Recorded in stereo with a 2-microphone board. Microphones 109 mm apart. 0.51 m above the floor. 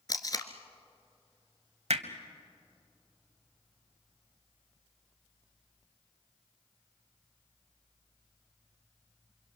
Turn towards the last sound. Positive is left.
turn(degrees=-75)  # may be behind; listen again after turning